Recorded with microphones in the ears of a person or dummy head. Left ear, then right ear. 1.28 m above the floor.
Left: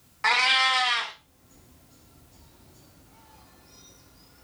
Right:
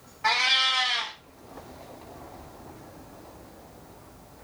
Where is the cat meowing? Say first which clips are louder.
Left 1 dB; 45° left (ahead or behind), 0.6 m.